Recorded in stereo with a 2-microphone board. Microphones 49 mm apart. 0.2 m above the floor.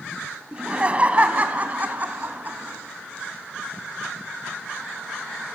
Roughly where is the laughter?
Right.